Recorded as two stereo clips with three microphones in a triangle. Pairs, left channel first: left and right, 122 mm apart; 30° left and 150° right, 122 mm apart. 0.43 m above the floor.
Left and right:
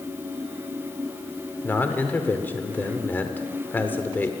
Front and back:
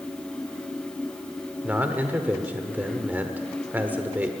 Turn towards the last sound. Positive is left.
turn(degrees=150)